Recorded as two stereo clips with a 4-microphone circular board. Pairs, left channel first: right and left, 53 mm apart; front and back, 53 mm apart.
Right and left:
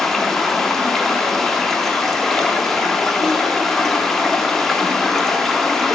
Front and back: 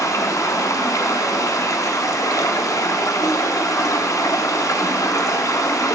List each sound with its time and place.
0.0 s running water: 5° right, 0.8 m